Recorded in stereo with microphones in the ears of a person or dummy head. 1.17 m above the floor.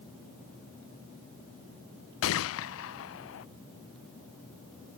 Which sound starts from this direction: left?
A gunshot, at 2.2 s.